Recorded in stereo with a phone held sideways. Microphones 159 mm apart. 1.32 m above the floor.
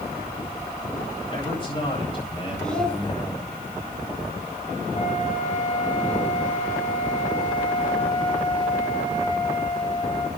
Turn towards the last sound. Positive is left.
turn(degrees=45)  # may be behind; listen again after turning